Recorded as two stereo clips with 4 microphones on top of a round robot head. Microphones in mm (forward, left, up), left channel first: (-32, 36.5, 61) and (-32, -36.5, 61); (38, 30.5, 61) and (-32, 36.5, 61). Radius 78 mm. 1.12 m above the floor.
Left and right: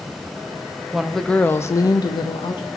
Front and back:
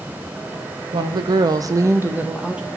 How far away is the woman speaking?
About 1.0 m.